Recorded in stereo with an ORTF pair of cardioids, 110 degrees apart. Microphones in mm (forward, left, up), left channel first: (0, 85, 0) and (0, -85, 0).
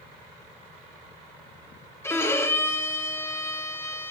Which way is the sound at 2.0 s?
15° left.